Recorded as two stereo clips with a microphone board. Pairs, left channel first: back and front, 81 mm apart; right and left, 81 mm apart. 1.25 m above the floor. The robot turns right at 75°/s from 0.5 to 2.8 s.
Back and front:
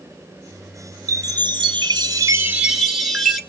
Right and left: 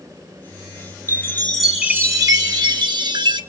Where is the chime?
40° right, 1.4 m; by 3.4 s 90° left, 1.4 m.